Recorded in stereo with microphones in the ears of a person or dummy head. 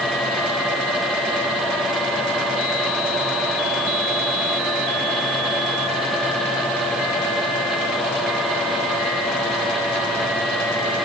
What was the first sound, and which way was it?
Only background noise.